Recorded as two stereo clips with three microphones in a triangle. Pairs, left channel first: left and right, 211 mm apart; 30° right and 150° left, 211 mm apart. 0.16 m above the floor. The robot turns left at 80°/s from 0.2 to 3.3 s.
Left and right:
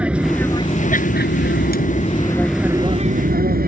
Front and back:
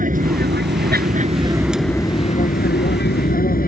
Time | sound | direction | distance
0.0 | an aircraft | 175° right | ?